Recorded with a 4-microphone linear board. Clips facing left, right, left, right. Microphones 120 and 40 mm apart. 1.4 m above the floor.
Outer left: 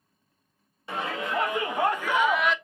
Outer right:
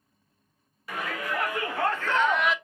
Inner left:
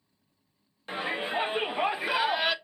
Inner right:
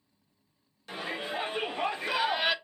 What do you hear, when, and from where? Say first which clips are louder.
0.9 s a shout: outer left 2 dB, inner left 4 dB; 25° left (ahead or behind), 1.5 m; by 2.5 s 5° right (ahead or behind), 0.5 m